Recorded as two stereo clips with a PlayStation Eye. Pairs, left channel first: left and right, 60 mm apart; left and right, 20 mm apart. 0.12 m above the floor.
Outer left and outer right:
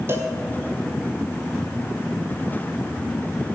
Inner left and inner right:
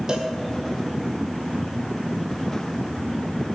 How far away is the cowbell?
About 1.9 m.